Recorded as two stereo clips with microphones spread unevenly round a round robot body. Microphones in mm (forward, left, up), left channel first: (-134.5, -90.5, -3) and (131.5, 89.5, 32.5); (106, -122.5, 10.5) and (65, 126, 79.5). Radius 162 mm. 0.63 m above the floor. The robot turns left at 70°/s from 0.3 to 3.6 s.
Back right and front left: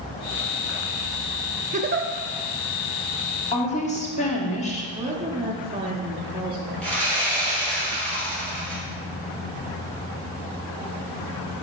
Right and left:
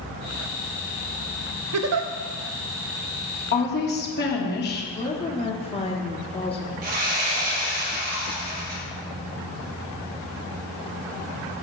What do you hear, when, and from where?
1.7 s a giggle: 100° left, 0.6 m; by 2.1 s 75° left, 0.6 m
3.5 s a woman speaking: 80° right, 1.3 m; by 4.8 s 85° right, 1.3 m
4.9 s a woman speaking: 40° right, 1.0 m
6.8 s sawing: 125° left, 2.5 m